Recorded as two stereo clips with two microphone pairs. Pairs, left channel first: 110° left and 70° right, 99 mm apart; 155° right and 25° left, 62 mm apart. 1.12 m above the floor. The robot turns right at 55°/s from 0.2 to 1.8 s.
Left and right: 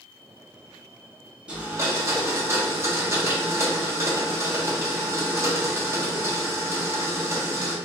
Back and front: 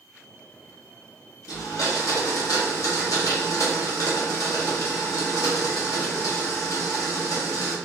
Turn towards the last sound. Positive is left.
turn(degrees=-130)